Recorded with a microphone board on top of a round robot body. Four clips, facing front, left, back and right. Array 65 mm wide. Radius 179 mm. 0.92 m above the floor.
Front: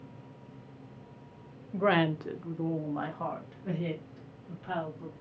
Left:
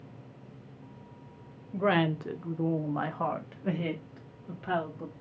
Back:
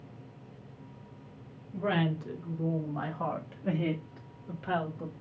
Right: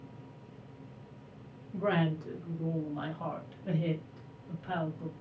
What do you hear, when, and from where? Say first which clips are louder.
1.7 s a woman speaking: left 4 dB, front 4 dB; 30° left, 1.2 m; by 5.1 s 140° left, 1.9 m